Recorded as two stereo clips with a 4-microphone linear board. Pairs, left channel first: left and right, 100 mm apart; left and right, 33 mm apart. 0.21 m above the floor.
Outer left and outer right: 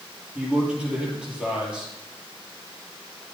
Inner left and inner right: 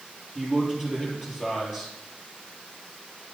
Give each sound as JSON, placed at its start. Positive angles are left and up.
{"t": 0.3, "sound": "a man speaking", "side_deg": -10, "distance_m": 6.0}